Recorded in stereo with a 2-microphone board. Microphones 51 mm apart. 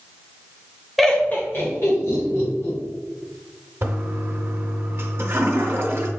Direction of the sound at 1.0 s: Centre (ahead or behind).